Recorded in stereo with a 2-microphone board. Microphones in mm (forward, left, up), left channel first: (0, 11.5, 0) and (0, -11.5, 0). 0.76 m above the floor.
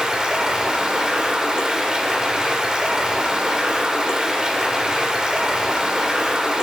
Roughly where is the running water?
Right.